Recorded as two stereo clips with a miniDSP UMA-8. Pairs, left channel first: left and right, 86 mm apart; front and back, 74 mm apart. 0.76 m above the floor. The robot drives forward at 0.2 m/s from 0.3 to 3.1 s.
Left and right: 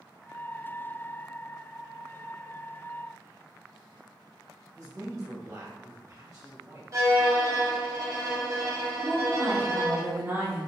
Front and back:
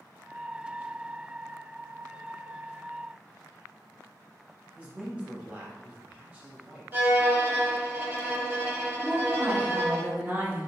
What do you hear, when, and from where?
4.8 s a man speaking: 115° right, 1.2 m
6.9 s a violin: 125° right, 0.9 m
9.0 s a woman speaking: 135° right, 0.9 m